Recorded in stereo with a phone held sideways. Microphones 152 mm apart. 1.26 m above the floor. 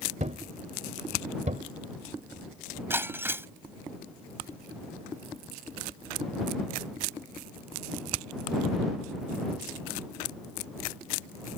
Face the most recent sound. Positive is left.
turn(degrees=-15)  # may be behind; listen again after turning